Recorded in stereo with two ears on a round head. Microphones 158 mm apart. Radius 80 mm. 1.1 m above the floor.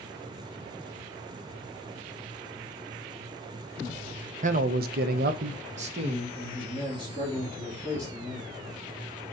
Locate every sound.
4.4 s a man speaking: 45° right (ahead or behind), 0.8 m; by 8.5 s 20° right (ahead or behind), 3 m